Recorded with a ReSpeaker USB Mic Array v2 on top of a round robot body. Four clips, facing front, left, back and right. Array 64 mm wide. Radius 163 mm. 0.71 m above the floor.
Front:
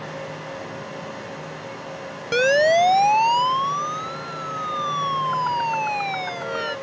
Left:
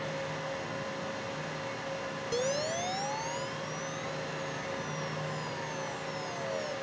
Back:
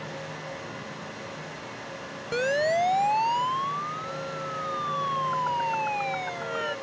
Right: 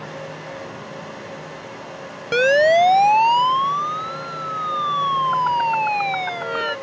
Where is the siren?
65° right; by 6.7 s 80° right.